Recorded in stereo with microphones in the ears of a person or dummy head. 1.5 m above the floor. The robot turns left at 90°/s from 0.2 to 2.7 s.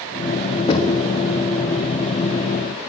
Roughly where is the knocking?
Behind left.